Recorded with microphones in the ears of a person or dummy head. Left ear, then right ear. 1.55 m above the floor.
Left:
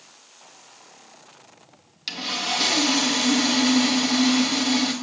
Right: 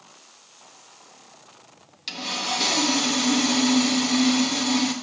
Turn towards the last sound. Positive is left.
turn(degrees=5)  # may be behind; listen again after turning